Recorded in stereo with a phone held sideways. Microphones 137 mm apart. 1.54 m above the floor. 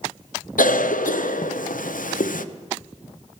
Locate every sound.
0.6 s a cough: 80° left, 0.6 m